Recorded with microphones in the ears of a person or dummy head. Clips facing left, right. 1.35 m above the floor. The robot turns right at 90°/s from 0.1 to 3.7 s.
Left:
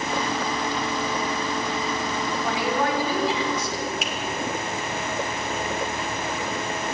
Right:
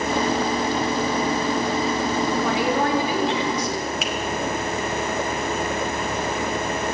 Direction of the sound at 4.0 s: 65° right (ahead or behind).